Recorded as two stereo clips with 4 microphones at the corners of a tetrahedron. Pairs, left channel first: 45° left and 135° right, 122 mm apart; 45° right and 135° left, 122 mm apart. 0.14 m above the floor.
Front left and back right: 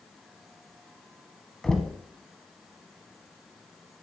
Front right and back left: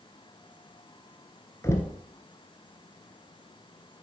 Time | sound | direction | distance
1.6 | knocking | 30° right | 0.9 m